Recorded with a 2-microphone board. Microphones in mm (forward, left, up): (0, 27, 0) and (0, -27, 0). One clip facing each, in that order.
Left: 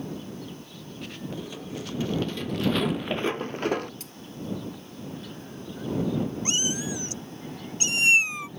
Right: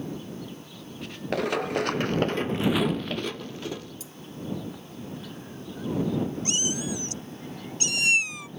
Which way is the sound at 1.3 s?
70° right (ahead or behind).